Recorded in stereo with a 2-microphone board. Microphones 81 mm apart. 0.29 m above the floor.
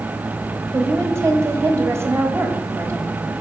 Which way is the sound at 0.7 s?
35° right (ahead or behind).